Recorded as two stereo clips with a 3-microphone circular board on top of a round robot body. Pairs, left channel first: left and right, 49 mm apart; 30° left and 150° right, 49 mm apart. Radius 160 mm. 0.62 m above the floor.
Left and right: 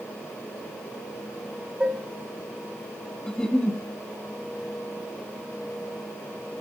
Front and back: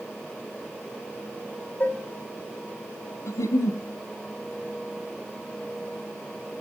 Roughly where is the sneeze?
No sneeze in this recording.